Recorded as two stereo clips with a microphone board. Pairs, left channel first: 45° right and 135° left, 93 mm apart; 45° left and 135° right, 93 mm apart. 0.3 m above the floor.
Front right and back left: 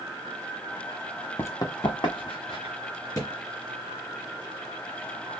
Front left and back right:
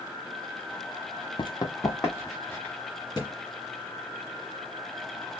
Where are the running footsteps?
20° left, 0.5 m; by 2.8 s 25° right, 2 m.